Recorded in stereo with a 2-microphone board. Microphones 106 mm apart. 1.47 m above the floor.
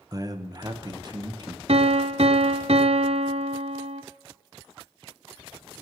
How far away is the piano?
About 0.8 m.